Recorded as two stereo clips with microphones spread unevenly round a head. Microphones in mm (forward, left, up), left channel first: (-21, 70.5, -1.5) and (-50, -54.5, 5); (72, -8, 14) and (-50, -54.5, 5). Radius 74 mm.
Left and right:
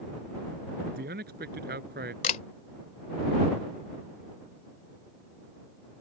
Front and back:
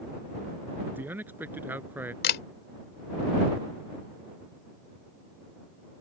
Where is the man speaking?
85° right.